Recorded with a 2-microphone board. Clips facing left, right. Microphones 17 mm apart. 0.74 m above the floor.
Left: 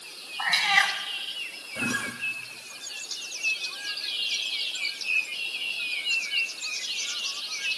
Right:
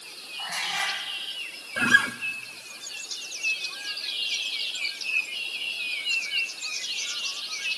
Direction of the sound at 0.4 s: 70° left (ahead or behind).